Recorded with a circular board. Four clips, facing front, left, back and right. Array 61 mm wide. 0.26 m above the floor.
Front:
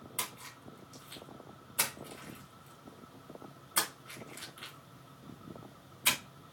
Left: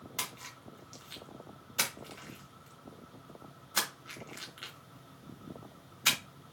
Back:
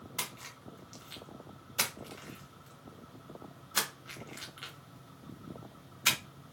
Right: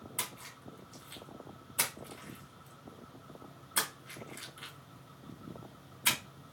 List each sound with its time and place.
0.2 s a splash: 135° left, 1.6 m